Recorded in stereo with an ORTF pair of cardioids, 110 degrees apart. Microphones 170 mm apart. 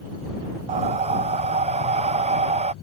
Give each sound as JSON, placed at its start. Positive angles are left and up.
{"t": 0.7, "sound": "breathing", "azimuth_deg": -45}